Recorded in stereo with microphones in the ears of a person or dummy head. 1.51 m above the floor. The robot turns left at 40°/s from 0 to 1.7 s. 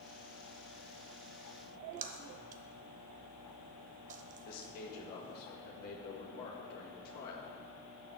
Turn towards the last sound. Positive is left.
turn(degrees=50)  # may be behind; listen again after turning